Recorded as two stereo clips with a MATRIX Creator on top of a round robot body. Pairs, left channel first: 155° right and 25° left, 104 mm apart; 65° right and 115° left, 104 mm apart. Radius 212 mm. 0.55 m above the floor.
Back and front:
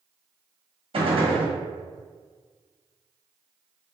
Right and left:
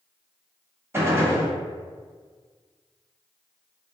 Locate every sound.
0.9 s a gunshot: 45° left, 1.3 m